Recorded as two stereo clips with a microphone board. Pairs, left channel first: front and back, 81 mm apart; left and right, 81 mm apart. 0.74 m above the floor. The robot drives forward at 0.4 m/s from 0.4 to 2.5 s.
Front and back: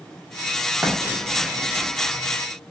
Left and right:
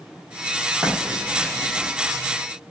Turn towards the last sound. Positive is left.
turn(degrees=-160)